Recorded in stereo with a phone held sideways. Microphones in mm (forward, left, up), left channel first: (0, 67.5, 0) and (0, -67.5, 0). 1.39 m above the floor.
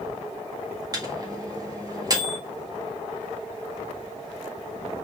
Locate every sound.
0.9 s a microwave: 30° right (ahead or behind), 1.5 m